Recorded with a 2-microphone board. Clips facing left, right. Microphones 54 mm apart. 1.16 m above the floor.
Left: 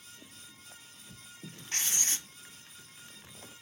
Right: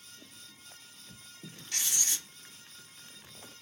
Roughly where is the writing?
Left.